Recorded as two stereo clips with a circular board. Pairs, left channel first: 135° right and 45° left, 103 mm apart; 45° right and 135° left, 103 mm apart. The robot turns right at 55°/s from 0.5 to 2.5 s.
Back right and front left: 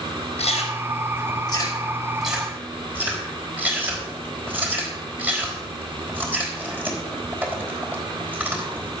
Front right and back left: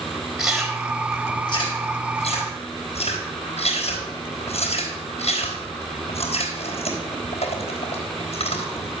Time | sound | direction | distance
0.4 | chewing | 140° right | 3.5 m